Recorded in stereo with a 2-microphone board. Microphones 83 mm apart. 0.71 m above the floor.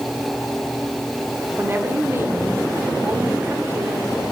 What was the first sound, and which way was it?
A woman speaking, 30° right (ahead or behind).